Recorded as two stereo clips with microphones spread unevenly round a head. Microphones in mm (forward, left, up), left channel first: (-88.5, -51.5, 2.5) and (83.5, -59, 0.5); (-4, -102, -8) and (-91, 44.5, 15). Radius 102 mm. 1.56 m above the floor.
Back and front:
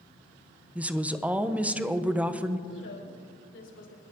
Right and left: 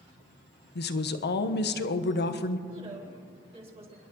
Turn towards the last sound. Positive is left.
turn(degrees=175)